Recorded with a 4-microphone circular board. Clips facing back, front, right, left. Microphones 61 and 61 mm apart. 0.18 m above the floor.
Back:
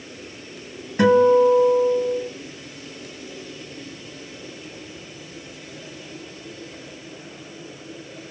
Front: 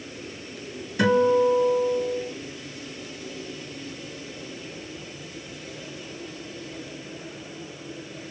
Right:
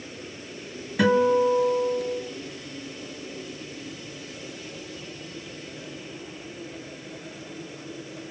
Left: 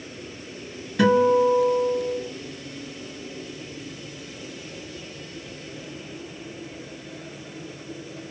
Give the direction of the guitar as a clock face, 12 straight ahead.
5 o'clock.